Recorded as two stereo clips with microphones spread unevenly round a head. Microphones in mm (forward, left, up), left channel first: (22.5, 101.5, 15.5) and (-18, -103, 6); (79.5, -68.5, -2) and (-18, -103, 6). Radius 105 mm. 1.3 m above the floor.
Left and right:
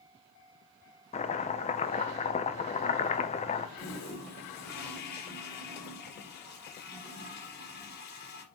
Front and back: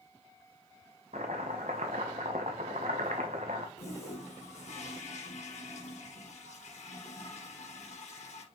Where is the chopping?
140° left, 0.7 m.